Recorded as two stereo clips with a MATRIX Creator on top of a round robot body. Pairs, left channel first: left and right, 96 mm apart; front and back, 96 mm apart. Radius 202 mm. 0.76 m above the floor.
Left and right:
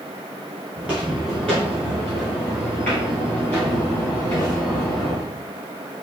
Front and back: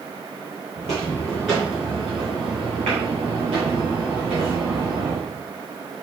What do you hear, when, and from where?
0.8 s footsteps: 10° right, 0.8 m; by 5.3 s 165° left, 2.5 m